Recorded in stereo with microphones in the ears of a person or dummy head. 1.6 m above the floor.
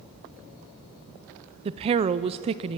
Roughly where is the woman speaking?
Right.